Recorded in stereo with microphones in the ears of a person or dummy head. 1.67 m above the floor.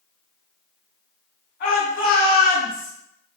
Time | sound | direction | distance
1.6 | a shout | 60° left (ahead or behind) | 1.3 m